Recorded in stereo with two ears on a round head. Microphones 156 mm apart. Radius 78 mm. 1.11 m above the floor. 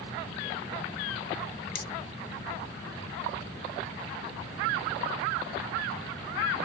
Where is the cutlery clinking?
50° left (ahead or behind), 0.8 m.